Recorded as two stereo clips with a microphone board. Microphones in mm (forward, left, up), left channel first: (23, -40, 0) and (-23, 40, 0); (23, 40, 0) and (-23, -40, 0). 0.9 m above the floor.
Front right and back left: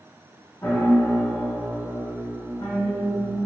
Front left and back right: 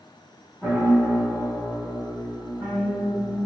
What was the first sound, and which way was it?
A piano, 10° right.